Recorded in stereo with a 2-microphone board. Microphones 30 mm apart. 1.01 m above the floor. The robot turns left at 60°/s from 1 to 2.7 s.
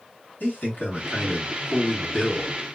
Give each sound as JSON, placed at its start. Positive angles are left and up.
{"t": 0.4, "sound": "a man speaking", "azimuth_deg": 90, "distance_m": 1.6}